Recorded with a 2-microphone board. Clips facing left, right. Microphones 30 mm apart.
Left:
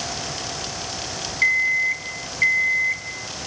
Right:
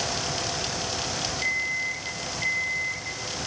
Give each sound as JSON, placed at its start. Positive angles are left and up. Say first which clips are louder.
{"t": 1.4, "sound": "an alarm clock", "louder": "left 10 dB", "side_deg": 65, "distance_m": 3.0}